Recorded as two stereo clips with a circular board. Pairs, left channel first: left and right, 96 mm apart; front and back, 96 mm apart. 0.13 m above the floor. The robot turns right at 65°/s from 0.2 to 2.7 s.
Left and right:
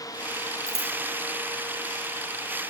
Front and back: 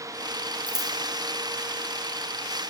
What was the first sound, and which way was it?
Scissors, 145° right.